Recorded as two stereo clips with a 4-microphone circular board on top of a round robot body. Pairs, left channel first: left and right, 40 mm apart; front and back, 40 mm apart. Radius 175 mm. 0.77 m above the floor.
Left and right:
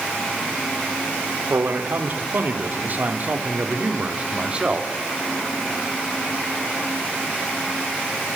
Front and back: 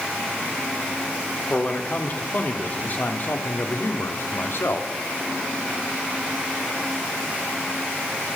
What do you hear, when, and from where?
1.5 s a man speaking: 60° right, 3.5 m; by 4.9 s 25° right, 3 m